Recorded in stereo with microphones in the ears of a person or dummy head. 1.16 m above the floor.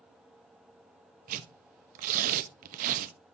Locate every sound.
1.3 s tearing paper: 45° right (ahead or behind), 0.9 m